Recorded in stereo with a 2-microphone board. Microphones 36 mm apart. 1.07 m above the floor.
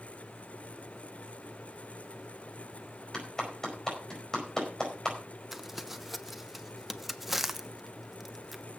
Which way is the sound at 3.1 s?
15° left (ahead or behind).